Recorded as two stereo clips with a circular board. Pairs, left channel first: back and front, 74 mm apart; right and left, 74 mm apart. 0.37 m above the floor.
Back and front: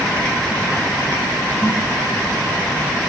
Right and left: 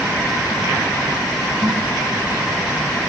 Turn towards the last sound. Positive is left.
turn(degrees=125)